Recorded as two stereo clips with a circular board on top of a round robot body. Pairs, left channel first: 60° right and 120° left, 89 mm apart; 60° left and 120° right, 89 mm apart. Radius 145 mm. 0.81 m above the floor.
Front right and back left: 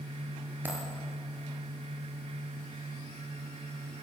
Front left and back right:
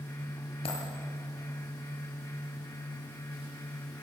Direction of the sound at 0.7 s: 50° left.